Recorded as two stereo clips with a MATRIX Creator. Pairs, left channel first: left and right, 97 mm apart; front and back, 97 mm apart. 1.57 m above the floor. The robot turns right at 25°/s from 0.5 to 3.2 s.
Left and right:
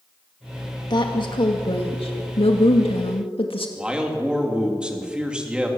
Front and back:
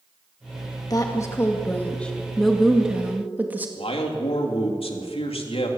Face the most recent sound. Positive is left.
turn(degrees=-10)